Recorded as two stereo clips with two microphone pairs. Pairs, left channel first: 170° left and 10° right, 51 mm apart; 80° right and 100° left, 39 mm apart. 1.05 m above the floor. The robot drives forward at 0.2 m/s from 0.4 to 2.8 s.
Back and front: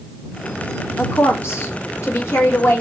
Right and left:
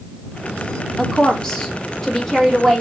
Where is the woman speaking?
155° right, 1.2 m; by 2.8 s 160° right, 1.6 m.